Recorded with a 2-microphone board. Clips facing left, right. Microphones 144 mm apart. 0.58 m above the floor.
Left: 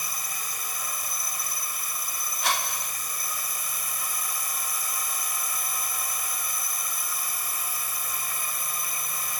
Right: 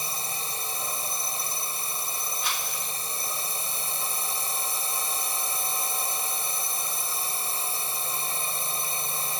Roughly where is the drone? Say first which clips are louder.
Right 3 dB; right.